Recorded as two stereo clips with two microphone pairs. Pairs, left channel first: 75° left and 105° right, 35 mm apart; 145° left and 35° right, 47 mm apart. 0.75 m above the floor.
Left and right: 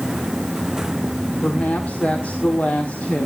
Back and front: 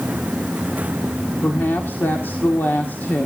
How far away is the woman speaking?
About 1.6 m.